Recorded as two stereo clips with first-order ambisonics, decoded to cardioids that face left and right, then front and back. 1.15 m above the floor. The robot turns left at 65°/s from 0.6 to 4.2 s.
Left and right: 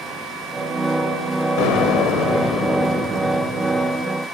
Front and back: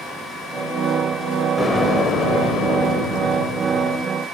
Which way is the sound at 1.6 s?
85° left.